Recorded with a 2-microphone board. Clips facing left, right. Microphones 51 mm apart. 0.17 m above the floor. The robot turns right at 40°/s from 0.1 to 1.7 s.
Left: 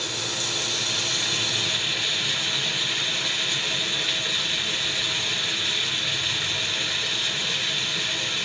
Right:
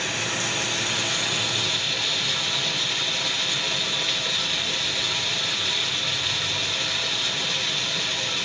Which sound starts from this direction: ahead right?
Running water, at 0.0 s.